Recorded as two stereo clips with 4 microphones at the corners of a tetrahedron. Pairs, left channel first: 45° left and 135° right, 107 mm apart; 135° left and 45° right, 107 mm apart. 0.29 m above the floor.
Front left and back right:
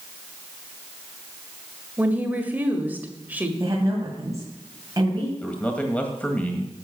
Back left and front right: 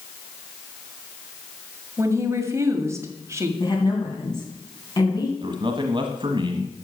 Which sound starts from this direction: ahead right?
A man speaking, at 5.4 s.